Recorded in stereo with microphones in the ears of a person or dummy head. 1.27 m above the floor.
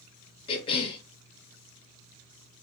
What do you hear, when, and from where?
0.5 s a cough: 25° left (ahead or behind), 0.6 m